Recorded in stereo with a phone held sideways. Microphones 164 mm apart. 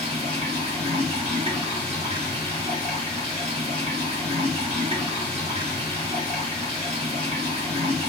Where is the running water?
35° right (ahead or behind), 1.0 m.